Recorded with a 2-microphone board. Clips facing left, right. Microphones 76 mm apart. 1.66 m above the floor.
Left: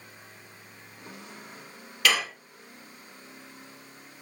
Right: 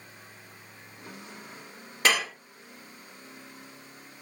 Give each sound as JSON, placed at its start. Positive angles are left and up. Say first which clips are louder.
{"t": 2.0, "sound": "dishes clattering", "louder": "even", "side_deg": -30, "distance_m": 1.2}